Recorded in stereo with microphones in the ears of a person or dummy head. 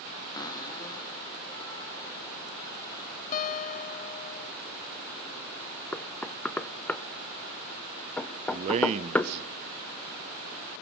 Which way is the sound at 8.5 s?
40° right (ahead or behind).